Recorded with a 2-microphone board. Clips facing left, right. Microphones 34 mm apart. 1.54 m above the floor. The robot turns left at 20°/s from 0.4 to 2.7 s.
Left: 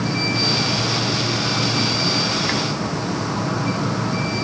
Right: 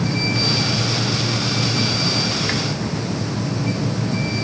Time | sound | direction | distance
0.0 | an insect | 125° left | ?